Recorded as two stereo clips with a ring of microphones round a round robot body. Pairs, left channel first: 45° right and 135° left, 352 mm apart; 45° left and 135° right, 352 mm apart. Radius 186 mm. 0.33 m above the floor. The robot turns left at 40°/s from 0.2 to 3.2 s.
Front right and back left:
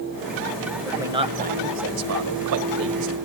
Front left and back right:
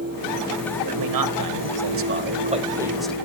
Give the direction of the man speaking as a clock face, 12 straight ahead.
5 o'clock.